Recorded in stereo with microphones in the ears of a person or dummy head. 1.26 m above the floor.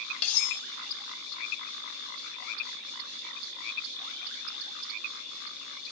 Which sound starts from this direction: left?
Cutlery clinking, at 0.2 s.